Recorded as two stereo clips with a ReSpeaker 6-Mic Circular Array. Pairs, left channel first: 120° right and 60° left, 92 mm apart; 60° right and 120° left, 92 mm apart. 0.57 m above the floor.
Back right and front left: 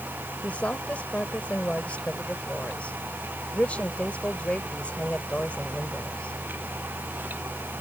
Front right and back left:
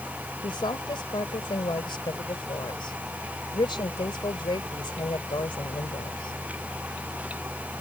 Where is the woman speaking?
45° right.